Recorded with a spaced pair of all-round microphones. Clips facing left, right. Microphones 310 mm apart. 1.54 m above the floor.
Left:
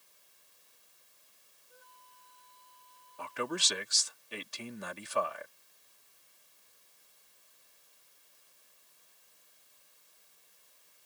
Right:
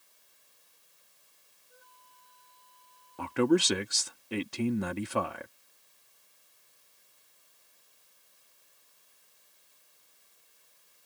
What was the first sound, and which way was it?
A flute, centre (ahead or behind).